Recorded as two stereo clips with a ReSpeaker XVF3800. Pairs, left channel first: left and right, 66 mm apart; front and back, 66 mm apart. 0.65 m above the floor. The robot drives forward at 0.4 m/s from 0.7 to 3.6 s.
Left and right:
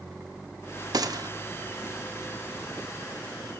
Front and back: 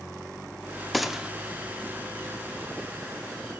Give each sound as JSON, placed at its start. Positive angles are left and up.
{"t": 0.9, "sound": "a gunshot", "azimuth_deg": -90, "distance_m": 0.9}